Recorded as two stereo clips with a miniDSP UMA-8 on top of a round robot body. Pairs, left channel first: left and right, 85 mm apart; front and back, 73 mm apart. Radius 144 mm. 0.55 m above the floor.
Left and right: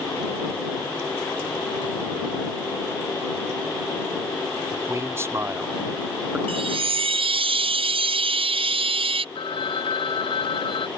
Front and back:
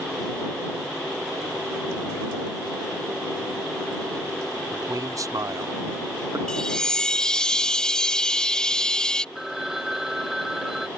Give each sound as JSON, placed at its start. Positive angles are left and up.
{"t": 4.7, "sound": "a man speaking", "azimuth_deg": -145}
{"t": 6.5, "sound": "a chime", "azimuth_deg": -80}
{"t": 9.3, "sound": "a phone ringing", "azimuth_deg": 95}